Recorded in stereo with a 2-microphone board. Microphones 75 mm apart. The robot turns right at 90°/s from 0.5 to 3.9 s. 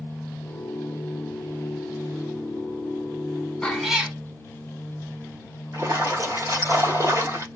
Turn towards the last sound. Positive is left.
turn(degrees=-40)  # may be behind; listen again after turning